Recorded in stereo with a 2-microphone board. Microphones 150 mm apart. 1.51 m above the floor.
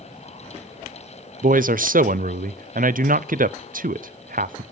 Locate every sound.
1.4 s a man speaking: 70° right (ahead or behind), 0.6 m